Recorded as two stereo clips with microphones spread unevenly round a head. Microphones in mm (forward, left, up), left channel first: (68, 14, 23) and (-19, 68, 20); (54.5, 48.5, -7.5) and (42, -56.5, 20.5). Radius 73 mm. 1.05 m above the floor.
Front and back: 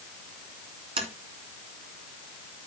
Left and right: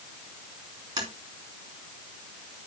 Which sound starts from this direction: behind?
Tapping, at 1.0 s.